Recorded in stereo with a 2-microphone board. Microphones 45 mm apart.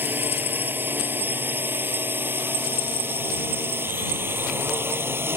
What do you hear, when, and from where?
0.0 s a drone: 50° right (ahead or behind); by 5.4 s 60° right (ahead or behind)